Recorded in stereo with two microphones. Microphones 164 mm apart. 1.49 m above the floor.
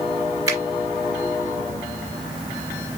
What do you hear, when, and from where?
0.5 s a finger snap: 20° right (ahead or behind), 3 m